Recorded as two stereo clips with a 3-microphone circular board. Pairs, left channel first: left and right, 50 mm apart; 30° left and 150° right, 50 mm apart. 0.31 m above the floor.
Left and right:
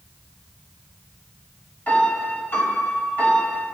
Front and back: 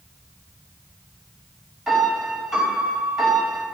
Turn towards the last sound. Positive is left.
turn(degrees=125)